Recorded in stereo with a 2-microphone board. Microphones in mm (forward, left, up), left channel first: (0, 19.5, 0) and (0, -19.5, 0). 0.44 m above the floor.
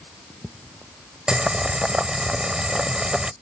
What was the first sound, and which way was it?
Boiling, 20° right (ahead or behind).